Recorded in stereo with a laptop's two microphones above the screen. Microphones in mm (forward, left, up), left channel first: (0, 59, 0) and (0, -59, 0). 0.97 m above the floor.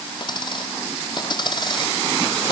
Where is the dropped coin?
40° left (ahead or behind).